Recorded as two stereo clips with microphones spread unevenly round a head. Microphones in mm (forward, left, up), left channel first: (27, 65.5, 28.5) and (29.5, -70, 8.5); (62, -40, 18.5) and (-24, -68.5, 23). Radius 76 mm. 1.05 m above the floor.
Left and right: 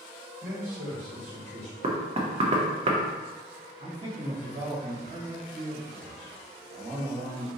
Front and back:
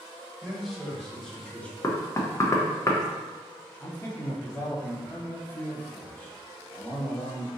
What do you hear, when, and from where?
0.4 s a man speaking: 75° right, 1.8 m; by 1.7 s 55° right, 1.2 m
1.8 s knocking: 40° right, 0.6 m
3.8 s a man speaking: 50° right, 1.4 m